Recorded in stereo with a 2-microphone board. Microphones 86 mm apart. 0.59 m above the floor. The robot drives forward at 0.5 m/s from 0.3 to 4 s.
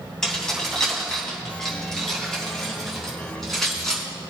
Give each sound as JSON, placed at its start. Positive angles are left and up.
{"t": 0.2, "sound": "keys jangling", "side_deg": 5, "distance_m": 3.0}